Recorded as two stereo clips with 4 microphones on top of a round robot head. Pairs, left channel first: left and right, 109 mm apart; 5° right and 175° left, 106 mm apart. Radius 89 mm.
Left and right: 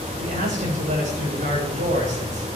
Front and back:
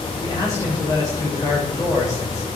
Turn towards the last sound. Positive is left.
turn(degrees=-75)